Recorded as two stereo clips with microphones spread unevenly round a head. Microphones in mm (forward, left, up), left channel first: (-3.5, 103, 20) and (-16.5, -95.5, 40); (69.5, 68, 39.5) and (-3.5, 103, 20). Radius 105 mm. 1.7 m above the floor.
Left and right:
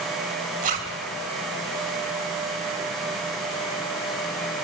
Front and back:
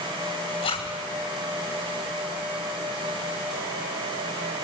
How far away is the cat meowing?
I don't hear a cat meowing.